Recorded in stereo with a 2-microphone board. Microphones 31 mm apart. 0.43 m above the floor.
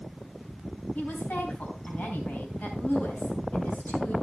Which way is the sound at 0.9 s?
75° left (ahead or behind).